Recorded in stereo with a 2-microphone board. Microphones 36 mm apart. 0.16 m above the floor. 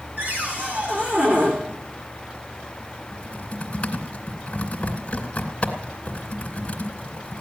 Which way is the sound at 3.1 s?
35° left (ahead or behind).